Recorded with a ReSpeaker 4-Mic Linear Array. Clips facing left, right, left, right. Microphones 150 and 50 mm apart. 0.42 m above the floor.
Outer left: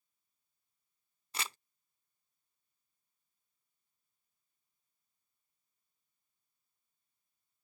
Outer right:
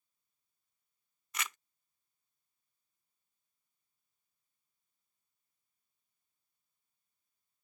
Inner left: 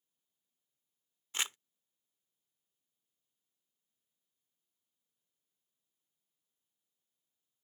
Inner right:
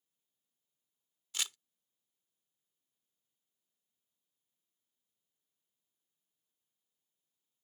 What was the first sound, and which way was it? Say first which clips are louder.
Crumpling: even, inner left 3 dB; 30° left (ahead or behind).